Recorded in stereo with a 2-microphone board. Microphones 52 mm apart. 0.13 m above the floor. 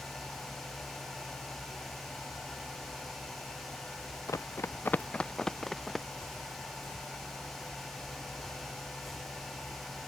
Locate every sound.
4.3 s running footsteps: 80° left; by 6.1 s centre (ahead or behind)